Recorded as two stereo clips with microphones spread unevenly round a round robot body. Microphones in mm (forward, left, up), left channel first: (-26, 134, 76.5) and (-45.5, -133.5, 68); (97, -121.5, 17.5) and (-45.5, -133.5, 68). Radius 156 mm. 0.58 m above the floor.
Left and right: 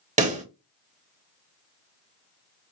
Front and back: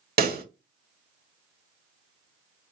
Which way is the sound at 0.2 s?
155° right.